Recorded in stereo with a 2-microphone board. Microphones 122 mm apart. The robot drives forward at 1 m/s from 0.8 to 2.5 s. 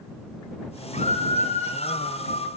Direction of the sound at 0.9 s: 75° left (ahead or behind).